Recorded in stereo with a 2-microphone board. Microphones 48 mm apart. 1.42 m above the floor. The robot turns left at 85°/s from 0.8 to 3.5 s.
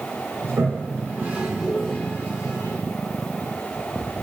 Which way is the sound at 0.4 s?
75° right (ahead or behind).